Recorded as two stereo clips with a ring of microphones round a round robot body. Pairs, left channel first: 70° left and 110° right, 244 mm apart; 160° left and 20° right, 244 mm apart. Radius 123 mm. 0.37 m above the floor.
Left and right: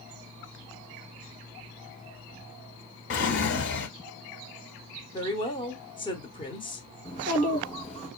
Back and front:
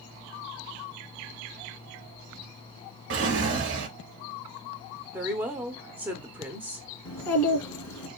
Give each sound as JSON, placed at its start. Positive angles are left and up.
{"t": 3.1, "sound": "a drawer", "azimuth_deg": 25, "distance_m": 0.9}
{"t": 5.1, "sound": "a woman speaking", "azimuth_deg": 45, "distance_m": 0.9}
{"t": 7.0, "sound": "a child speaking", "azimuth_deg": 135, "distance_m": 3.5}